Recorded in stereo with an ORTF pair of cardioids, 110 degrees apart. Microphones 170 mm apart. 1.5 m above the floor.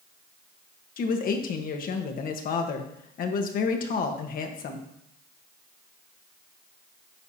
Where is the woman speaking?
55° left, 1.3 m.